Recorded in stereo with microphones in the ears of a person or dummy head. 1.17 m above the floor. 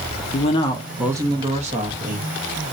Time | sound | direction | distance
0.3 | a man speaking | 35° left (ahead or behind) | 0.5 m